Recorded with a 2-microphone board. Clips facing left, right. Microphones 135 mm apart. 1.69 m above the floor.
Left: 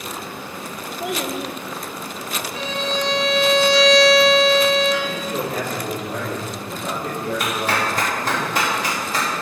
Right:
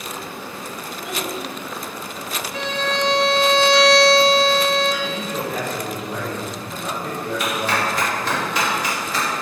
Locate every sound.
1.0 s a child speaking: 60° left (ahead or behind), 1.1 m
2.5 s a violin: 70° right (ahead or behind), 1.4 m
5.0 s a man speaking: 40° left (ahead or behind), 4 m
7.4 s a clap: 45° left (ahead or behind), 3 m